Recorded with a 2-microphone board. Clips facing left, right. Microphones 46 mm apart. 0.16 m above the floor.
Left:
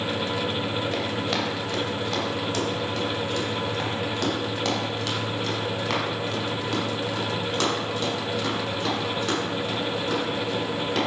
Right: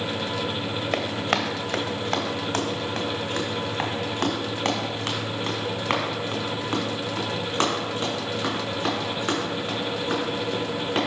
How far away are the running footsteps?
About 1.8 m.